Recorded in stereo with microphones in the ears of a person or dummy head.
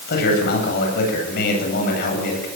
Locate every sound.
0.1 s a man speaking: 55° left (ahead or behind), 9 m